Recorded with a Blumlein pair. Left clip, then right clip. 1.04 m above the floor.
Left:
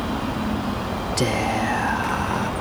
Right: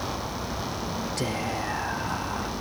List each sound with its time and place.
1.2 s whispering: 25° left